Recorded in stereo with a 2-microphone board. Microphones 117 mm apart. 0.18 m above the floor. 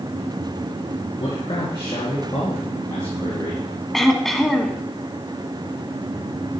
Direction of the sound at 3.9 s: 5° left (ahead or behind).